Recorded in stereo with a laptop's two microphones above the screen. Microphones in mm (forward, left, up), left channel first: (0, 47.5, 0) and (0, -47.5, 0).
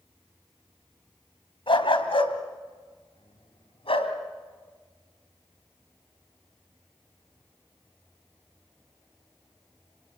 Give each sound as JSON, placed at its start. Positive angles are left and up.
{"t": 1.7, "sound": "a dog barking", "side_deg": 65, "distance_m": 2.5}